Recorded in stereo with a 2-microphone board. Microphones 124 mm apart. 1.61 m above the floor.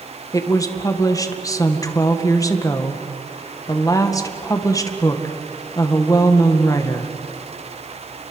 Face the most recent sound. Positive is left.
turn(degrees=30)  # may be behind; listen again after turning